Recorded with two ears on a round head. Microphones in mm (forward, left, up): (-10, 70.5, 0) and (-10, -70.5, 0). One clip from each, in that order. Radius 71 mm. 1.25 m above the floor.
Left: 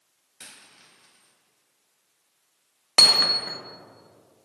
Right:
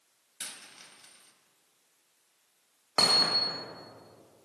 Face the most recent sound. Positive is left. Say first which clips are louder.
# left 7 dB
turn(degrees=50)  # may be behind; listen again after turning